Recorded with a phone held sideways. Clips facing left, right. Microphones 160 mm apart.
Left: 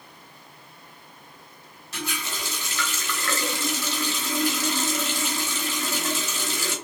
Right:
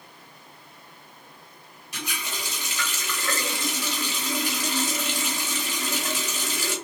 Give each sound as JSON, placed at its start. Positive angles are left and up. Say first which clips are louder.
{"t": 1.9, "sound": "a running tap", "louder": "left 2 dB", "side_deg": -15, "distance_m": 1.0}